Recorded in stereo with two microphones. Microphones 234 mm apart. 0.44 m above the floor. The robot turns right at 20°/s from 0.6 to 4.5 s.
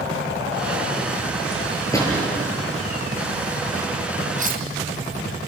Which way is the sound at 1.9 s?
15° left (ahead or behind).